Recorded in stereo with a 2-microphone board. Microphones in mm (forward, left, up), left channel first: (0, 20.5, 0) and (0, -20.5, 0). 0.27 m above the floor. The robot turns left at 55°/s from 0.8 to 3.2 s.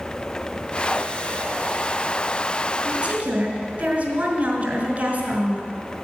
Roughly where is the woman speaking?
Right.